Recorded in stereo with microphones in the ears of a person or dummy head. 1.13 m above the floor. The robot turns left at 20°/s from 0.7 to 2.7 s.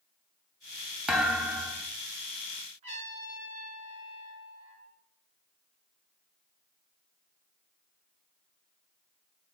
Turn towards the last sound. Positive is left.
turn(degrees=-35)  # may be behind; listen again after turning